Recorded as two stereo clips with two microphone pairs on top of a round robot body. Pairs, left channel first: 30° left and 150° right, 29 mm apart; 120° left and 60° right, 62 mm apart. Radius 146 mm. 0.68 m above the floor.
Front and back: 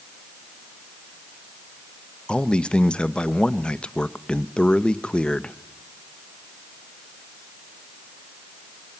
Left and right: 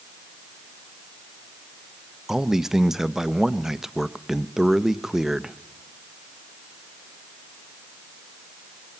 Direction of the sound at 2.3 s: 5° left.